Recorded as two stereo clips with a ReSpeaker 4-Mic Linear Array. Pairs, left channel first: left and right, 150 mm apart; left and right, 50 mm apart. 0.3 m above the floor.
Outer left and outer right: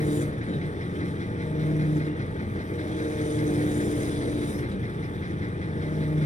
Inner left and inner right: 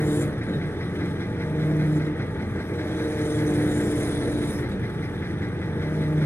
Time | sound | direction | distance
0.0 | an engine running | 55° left (ahead or behind) | 0.9 m